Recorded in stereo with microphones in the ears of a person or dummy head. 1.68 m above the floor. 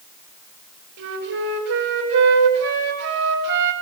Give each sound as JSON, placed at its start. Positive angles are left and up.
{"t": 1.0, "sound": "a flute", "side_deg": -65, "distance_m": 8.5}